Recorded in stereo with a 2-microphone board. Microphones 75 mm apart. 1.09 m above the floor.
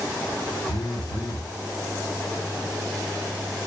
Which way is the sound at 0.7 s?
70° left (ahead or behind).